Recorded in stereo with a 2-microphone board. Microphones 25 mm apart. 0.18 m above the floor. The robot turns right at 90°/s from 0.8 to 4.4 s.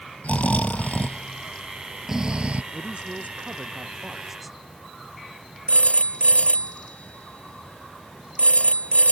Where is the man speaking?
155° right; by 4.6 s 5° right.